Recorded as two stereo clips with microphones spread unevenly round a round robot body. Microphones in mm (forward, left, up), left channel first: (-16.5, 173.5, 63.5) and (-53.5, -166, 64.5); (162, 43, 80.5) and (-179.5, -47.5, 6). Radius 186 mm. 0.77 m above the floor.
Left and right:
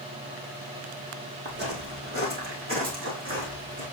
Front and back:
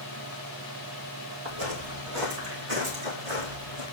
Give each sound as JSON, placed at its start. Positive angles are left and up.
{"t": 1.4, "sound": "footsteps", "azimuth_deg": -160, "distance_m": 1.7}